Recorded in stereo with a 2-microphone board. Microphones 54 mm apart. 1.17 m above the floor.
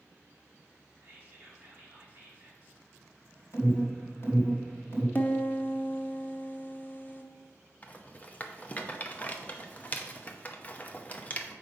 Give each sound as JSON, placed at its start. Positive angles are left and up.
{"t": 1.0, "sound": "whispering", "side_deg": -35, "distance_m": 3.0}
{"t": 3.5, "sound": "an alarm", "side_deg": 50, "distance_m": 3.0}
{"t": 5.2, "sound": "a piano", "side_deg": 35, "distance_m": 0.9}
{"t": 7.8, "sound": "a rattle", "side_deg": 30, "distance_m": 0.8}